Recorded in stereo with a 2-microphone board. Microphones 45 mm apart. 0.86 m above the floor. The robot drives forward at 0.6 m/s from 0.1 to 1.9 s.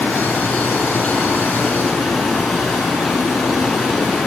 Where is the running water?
5° left (ahead or behind), 9 m.